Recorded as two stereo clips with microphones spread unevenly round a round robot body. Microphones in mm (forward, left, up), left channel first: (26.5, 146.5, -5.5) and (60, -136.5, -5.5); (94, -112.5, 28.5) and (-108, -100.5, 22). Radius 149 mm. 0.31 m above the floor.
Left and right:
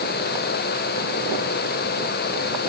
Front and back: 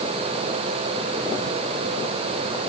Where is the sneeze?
I don't hear a sneeze.